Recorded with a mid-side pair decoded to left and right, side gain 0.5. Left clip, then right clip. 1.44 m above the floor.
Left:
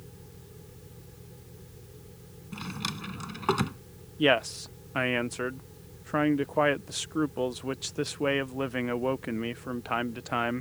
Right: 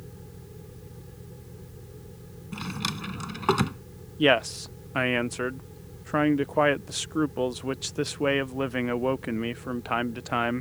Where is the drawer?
20° right.